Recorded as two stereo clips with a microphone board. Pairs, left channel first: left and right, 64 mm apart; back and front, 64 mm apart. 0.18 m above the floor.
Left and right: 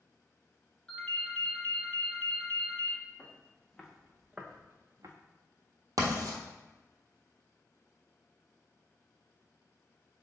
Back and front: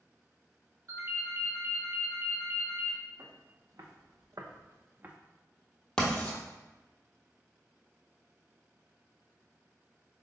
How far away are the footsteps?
About 1.5 m.